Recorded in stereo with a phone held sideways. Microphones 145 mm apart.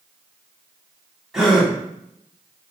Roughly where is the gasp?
Centre.